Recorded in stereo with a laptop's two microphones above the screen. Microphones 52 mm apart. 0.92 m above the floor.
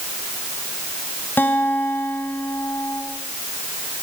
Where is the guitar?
45° left (ahead or behind), 4 m.